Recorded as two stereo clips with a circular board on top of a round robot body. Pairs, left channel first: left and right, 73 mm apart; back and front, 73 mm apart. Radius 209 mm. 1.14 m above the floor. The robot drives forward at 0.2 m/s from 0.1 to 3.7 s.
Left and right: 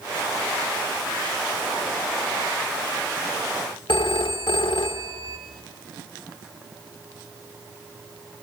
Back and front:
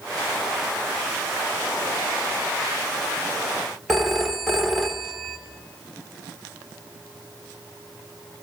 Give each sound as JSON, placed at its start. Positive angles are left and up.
{"t": 3.9, "sound": "a phone ringing", "azimuth_deg": 90, "distance_m": 0.7}